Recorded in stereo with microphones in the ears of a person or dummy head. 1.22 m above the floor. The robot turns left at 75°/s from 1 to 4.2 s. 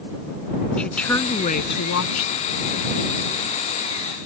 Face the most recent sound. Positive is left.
turn(degrees=-65)